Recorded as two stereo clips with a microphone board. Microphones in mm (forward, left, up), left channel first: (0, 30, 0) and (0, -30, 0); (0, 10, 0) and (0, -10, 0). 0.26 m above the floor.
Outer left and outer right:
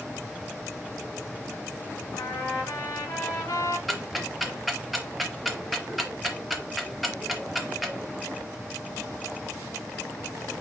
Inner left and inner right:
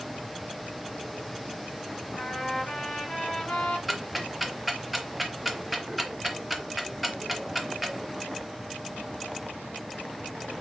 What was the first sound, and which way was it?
A trumpet, 70° left (ahead or behind).